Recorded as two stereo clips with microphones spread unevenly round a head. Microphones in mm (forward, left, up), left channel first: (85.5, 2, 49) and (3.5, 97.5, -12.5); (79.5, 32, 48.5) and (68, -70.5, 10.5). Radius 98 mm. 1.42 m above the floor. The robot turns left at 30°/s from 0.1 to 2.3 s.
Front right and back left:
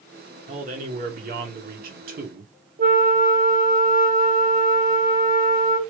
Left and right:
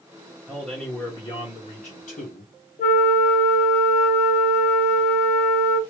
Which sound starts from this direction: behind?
A man speaking, at 0.5 s.